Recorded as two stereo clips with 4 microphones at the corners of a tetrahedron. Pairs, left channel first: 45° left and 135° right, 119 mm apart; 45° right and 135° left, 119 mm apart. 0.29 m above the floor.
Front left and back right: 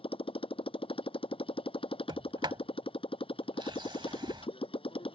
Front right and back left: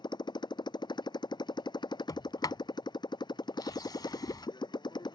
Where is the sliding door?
95° right.